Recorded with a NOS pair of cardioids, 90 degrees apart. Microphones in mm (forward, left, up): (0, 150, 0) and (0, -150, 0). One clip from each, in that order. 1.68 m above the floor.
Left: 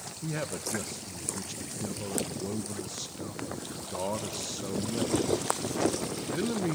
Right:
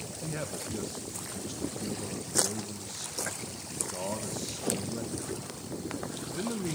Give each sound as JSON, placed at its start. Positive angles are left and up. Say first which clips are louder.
{"t": 0.2, "sound": "a man speaking", "louder": "left 3 dB", "azimuth_deg": 25, "distance_m": 1.8}